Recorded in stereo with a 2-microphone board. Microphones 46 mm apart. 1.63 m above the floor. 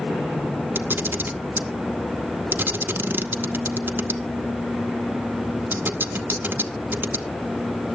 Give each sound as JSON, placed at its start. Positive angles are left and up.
{"t": 0.8, "sound": "a camera shutter", "side_deg": -50, "distance_m": 0.7}